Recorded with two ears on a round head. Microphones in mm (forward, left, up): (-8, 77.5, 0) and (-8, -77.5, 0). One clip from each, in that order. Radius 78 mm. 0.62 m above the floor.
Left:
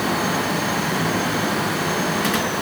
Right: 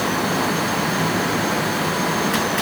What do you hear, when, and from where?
Only background noise.